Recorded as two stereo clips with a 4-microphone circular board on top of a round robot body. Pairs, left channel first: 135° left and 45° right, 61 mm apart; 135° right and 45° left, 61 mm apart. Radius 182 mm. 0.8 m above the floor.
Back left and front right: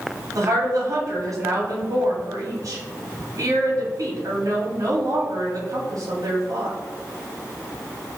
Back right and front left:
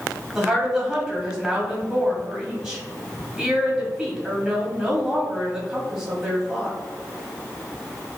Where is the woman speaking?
35° right, 1.7 m.